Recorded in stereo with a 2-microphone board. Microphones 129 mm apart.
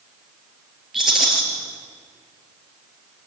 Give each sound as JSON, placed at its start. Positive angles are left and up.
{"t": 0.9, "sound": "a rattle", "side_deg": -5, "distance_m": 6.0}